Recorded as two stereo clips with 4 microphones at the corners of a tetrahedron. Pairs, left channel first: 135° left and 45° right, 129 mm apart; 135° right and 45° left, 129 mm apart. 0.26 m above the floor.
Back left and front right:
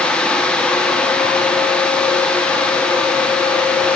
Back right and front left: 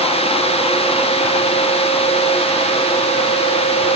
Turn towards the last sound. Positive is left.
No sound to turn to.